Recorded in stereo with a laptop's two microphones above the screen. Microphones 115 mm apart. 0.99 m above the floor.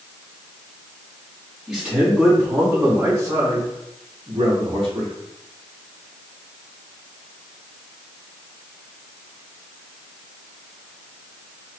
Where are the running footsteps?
No running footsteps in this recording.